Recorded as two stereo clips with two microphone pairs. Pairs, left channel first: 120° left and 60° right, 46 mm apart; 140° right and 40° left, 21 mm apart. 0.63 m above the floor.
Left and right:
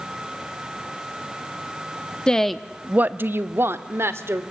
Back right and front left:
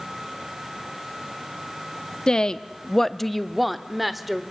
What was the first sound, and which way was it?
A woman speaking, 175° right.